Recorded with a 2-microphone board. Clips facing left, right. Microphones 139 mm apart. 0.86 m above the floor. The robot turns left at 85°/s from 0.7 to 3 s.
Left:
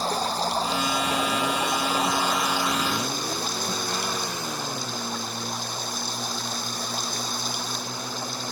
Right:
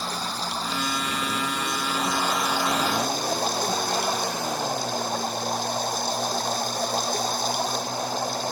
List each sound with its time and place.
0.0 s running water: 145° left; by 8.5 s 55° right